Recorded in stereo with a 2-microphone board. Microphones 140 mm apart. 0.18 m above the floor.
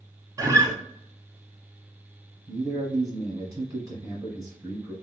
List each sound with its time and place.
0.4 s a guitar: 25° right (ahead or behind), 0.7 m
2.5 s a man speaking: 25° right (ahead or behind), 1.6 m